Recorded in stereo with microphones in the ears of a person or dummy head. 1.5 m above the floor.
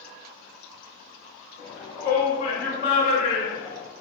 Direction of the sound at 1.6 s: 65° left (ahead or behind).